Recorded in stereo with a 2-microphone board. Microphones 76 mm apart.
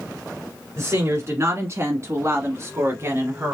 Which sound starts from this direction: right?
A woman speaking, at 0.8 s.